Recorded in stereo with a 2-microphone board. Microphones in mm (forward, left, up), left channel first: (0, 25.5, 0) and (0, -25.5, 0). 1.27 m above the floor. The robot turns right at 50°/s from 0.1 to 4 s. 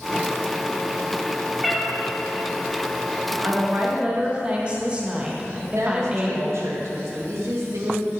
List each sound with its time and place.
1.6 s a cat meowing: 5° right (ahead or behind), 1.8 m; by 1.9 s 5° left (ahead or behind), 1.8 m
3.4 s a woman speaking: 50° right (ahead or behind), 1.2 m; by 6.6 s 20° right (ahead or behind), 1.2 m
5.6 s a woman speaking: 75° right (ahead or behind), 1.6 m